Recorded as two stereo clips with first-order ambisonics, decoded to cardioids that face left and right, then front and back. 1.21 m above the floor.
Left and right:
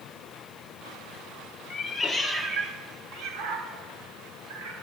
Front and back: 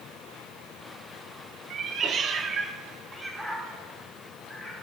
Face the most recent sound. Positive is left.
turn(degrees=-90)